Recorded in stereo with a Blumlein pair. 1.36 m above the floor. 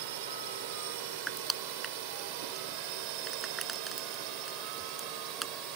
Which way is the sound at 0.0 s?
50° right.